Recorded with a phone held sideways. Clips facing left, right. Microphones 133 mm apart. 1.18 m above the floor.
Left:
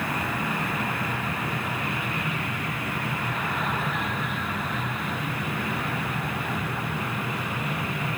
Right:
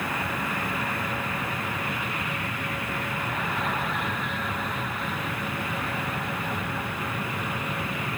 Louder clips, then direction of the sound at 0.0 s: Left 1 dB; 80° left.